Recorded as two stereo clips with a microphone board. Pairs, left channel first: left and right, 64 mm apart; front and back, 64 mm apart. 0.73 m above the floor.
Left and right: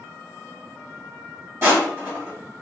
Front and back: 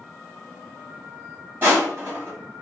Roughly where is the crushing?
Behind right.